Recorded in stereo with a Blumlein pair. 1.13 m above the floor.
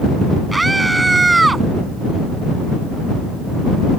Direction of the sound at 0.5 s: 10° right.